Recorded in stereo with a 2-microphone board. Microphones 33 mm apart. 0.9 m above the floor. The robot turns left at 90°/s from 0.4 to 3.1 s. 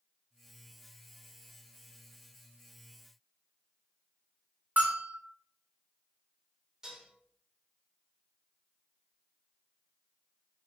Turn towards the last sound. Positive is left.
turn(degrees=-20)  # may be behind; listen again after turning